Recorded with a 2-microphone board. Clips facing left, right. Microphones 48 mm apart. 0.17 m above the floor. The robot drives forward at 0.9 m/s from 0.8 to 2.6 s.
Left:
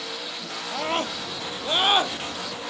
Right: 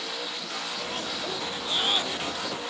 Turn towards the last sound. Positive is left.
turn(degrees=35)  # may be behind; listen again after turning